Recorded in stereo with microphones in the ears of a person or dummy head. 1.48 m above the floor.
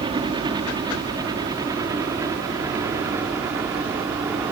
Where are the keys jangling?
No keys jangling in this recording.